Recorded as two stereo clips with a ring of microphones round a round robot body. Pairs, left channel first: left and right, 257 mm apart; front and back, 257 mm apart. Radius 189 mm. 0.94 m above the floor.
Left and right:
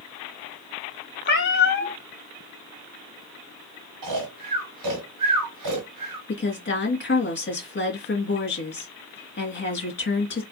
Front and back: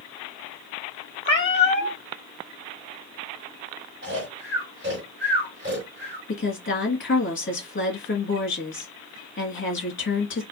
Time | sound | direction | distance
1.2 | a cat meowing | 45° left | 1.5 m
4.0 | snoring | 115° right | 1.4 m
6.3 | a woman speaking | 45° left | 2 m